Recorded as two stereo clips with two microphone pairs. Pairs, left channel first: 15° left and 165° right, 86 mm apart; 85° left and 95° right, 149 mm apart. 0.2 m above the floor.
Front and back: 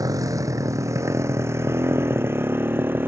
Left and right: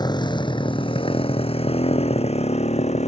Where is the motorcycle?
150° left; by 3.1 s 130° left.